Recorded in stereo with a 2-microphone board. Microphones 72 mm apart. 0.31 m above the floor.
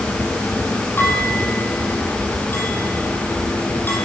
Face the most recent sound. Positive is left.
turn(degrees=30)  # may be behind; listen again after turning